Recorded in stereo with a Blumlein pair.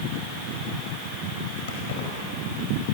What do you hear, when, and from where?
1.7 s keys jangling: 55° left, 5 m